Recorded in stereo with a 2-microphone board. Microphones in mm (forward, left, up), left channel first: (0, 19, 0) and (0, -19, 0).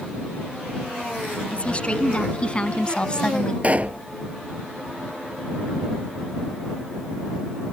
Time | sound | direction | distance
1.5 | a woman speaking | 30° left (ahead or behind) | ?
3.6 | a pop | 40° right (ahead or behind) | ?